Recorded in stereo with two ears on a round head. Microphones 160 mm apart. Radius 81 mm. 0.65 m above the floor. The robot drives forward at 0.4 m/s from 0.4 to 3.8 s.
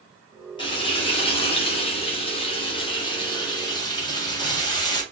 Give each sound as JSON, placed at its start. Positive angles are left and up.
{"t": 0.6, "sound": "frying", "side_deg": 25, "distance_m": 1.0}